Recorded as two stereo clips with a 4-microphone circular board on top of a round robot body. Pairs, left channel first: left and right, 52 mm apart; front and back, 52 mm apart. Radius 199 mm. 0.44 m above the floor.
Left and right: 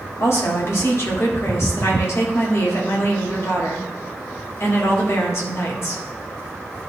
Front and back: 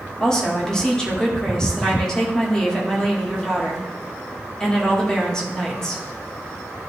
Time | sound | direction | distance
0.2 | a woman speaking | 75° left | 1.8 m